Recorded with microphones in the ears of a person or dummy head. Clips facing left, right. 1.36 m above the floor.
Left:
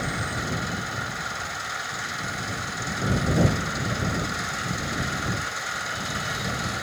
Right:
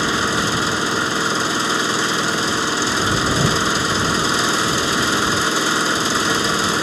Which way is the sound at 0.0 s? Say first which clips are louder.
Right 10 dB; 85° right.